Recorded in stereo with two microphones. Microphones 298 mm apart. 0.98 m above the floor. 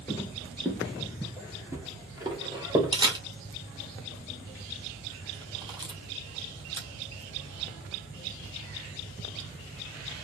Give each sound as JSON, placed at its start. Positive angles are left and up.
{"t": 0.1, "sound": "footsteps", "side_deg": 10, "distance_m": 1.0}
{"t": 2.9, "sound": "a camera shutter", "side_deg": -15, "distance_m": 0.7}